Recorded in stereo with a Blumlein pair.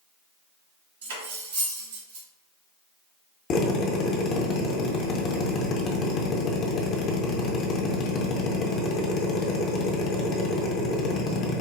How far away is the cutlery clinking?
About 1.3 m.